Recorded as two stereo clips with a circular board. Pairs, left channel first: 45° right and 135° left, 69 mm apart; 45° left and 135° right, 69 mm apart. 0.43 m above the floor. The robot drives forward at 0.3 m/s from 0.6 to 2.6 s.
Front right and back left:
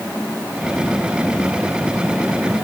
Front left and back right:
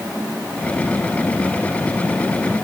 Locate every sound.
Only background noise.